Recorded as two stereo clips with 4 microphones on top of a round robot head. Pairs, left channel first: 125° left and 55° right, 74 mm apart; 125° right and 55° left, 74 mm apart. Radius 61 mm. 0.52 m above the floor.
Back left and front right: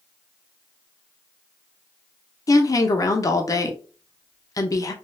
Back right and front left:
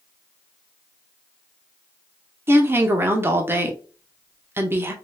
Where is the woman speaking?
105° left, 0.9 m.